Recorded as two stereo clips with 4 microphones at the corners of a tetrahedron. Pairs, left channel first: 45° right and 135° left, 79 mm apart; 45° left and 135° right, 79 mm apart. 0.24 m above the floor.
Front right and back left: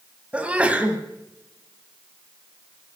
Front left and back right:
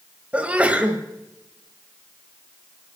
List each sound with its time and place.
0.3 s a sneeze: straight behind, 1.6 m